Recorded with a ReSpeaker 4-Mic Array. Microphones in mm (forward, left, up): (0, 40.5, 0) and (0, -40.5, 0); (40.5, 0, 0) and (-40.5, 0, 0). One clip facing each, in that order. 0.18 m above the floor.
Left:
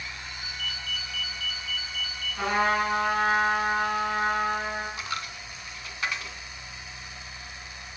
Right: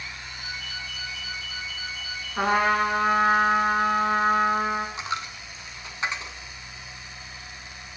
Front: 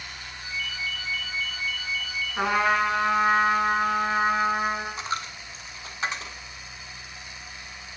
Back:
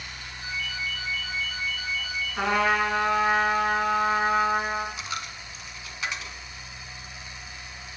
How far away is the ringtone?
About 4 m.